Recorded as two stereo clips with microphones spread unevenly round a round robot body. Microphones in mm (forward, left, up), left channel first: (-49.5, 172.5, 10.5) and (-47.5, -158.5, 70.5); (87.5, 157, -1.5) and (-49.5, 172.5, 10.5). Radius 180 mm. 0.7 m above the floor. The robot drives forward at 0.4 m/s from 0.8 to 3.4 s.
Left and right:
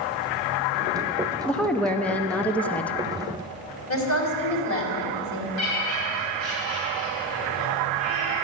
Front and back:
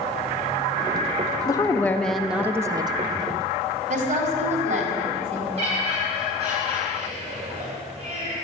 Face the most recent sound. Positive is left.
turn(degrees=130)